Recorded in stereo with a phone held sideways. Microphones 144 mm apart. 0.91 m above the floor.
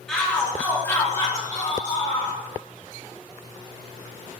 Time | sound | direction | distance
0.1 | a shout | 5° left (ahead or behind) | 1.9 m